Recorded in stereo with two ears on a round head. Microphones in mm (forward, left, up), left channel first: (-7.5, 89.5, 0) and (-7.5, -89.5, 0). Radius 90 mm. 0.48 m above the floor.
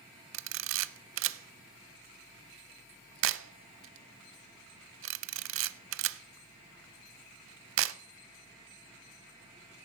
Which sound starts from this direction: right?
A camera shutter, at 0.3 s.